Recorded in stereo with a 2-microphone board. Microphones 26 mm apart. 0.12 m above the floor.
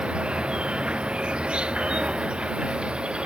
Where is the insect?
40° right (ahead or behind).